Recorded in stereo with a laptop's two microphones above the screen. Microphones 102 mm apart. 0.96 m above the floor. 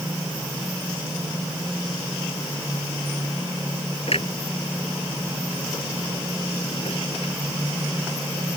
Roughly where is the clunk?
Left.